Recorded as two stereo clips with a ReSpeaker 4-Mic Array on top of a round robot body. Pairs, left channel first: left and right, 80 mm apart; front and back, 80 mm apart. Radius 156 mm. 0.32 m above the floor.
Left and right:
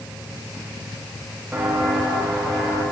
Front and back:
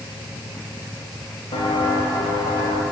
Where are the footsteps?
15° right, 2.5 m; by 2.8 s 5° left, 2.5 m.